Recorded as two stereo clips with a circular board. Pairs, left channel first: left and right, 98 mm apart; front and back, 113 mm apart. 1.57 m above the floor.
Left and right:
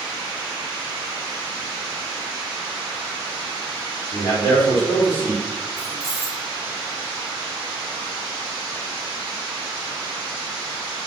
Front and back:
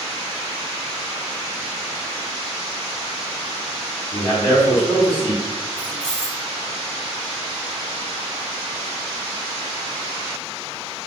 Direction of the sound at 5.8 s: 85° left.